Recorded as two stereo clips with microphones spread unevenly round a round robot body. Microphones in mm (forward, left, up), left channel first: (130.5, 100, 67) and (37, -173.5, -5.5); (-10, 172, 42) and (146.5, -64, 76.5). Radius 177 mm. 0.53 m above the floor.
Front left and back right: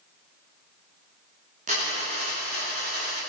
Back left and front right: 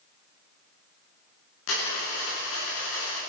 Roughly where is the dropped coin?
Behind.